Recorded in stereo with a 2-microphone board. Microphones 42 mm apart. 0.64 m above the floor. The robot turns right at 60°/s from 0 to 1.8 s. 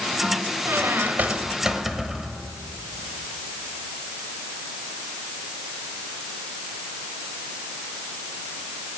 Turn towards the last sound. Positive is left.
turn(degrees=-10)